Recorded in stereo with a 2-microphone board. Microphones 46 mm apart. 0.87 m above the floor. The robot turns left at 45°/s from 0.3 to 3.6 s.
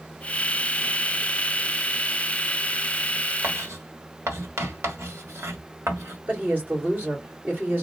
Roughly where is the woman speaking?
Right.